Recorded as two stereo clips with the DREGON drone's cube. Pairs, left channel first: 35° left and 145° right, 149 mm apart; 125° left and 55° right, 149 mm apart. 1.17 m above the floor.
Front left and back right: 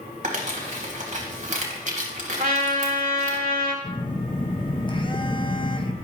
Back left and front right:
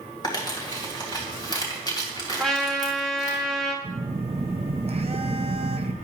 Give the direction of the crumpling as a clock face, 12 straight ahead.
6 o'clock.